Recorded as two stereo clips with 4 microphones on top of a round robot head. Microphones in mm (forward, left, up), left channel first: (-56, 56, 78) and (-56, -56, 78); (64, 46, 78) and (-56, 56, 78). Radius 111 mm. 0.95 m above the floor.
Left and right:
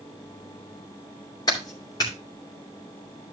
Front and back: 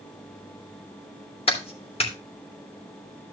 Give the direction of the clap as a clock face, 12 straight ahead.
11 o'clock.